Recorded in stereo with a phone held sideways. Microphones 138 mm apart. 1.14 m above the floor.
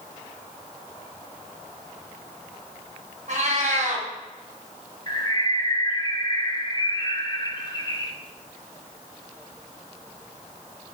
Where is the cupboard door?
No cupboard door in this recording.